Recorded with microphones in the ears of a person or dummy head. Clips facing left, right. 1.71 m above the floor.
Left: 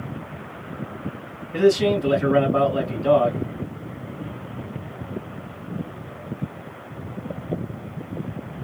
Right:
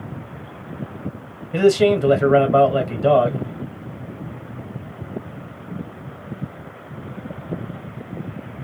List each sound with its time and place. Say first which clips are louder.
1.5 s a man speaking: right 3 dB; 65° right (ahead or behind), 1.3 m